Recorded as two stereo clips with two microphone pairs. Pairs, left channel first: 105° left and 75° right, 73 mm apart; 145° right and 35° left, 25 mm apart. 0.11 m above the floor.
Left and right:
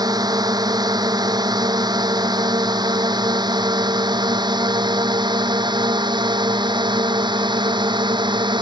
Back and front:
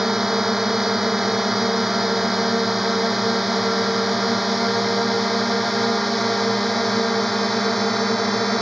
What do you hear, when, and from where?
0.0 s a drone: 45° right; by 8.6 s 65° right